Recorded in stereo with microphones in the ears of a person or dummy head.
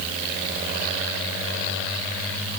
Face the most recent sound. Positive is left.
No sound to turn to.